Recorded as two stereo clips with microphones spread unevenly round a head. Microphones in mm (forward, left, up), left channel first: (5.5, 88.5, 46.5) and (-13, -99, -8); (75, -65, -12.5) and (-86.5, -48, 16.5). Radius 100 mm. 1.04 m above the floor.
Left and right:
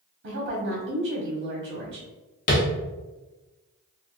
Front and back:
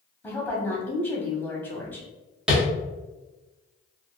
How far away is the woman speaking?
About 1.0 m.